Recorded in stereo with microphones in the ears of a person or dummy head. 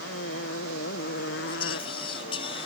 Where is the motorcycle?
70° left (ahead or behind).